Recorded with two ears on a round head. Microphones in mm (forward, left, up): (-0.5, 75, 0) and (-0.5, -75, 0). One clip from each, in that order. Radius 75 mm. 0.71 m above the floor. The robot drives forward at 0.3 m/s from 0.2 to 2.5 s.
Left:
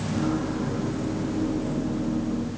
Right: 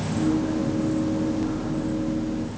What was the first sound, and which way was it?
Only background noise.